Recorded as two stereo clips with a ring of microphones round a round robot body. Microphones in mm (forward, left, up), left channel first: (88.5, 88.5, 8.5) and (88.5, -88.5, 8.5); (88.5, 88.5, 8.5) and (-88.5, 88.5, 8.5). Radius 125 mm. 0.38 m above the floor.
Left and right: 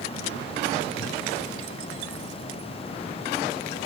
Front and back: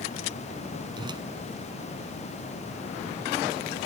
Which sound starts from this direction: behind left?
A whoosh, at 1.0 s.